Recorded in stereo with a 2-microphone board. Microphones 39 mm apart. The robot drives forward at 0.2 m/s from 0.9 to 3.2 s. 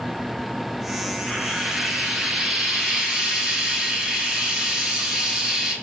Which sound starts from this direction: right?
Frying, at 1.3 s.